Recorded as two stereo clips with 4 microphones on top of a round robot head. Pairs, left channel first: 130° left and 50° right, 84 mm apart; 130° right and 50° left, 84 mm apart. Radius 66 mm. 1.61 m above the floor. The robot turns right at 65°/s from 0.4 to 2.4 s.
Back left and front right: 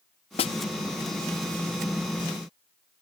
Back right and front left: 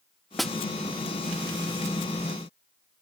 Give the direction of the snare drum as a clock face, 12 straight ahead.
7 o'clock.